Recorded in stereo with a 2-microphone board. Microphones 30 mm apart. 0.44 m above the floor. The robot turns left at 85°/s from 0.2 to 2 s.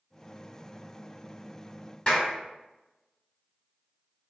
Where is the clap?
35° left (ahead or behind), 1.3 m.